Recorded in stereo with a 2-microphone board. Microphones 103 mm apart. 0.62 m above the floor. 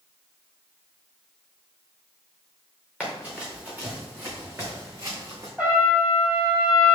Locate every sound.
3.0 s running footsteps: 5° right (ahead or behind), 3.5 m; by 5.5 s 40° right (ahead or behind), 3 m
5.6 s a trumpet: 10° right (ahead or behind), 3 m